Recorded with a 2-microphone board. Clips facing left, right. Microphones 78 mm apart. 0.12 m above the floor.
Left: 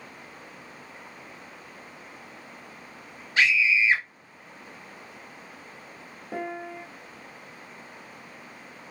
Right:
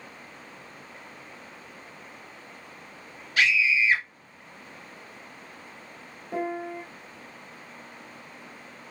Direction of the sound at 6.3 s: 30° left (ahead or behind).